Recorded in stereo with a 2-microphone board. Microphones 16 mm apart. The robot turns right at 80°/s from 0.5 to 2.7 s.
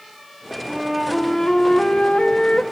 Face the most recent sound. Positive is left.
turn(degrees=130)